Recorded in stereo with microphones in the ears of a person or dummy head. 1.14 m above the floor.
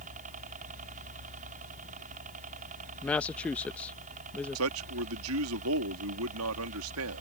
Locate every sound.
0.0 s a helicopter: 40° right (ahead or behind)
3.0 s a woman speaking: 5° left (ahead or behind)
4.5 s a man speaking: 75° right (ahead or behind)